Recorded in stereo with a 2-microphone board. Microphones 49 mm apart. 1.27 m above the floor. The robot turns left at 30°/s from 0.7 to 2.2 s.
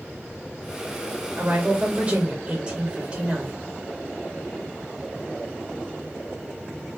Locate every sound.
1.4 s a woman speaking: 45° right (ahead or behind), 1.6 m; by 3.6 s 20° right (ahead or behind), 1.6 m